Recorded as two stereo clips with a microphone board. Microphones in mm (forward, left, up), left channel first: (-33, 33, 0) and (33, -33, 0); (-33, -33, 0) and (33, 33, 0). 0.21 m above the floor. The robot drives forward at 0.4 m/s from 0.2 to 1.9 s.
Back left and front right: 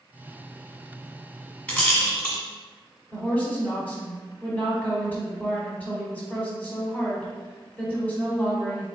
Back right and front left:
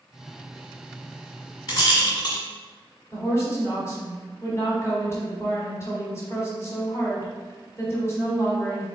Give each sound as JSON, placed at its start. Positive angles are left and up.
{"t": 1.7, "sound": "a rattle", "azimuth_deg": -155, "distance_m": 1.5}
{"t": 3.1, "sound": "a woman speaking", "azimuth_deg": -165, "distance_m": 1.2}